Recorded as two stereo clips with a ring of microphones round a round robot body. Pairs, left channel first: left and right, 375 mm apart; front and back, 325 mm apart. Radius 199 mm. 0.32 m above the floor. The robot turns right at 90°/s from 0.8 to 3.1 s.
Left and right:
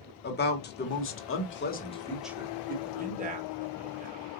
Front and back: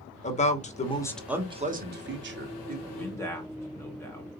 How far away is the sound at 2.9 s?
About 0.9 m.